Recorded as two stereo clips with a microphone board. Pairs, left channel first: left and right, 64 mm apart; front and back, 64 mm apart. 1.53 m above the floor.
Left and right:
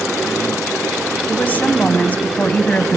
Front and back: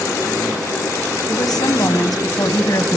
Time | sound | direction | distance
1.3 | a woman speaking | 25° left | 1.3 m